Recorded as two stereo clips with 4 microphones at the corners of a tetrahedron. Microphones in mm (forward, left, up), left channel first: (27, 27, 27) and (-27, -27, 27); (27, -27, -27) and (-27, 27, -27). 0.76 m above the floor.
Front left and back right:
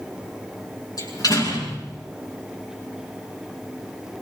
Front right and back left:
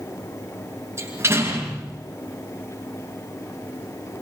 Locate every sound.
1.0 s a door slam: 80° left, 8 m